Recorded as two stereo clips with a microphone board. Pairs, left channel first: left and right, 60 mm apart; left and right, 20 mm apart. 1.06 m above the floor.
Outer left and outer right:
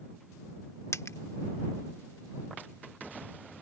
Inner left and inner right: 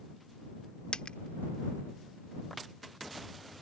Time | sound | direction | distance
0.9 | a dropped coin | 55° left (ahead or behind) | ?